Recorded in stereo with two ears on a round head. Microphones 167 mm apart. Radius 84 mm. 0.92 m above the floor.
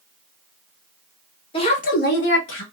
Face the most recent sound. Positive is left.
turn(degrees=75)  # may be behind; listen again after turning